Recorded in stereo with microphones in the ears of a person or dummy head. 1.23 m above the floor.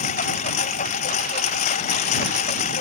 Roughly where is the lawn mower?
Left.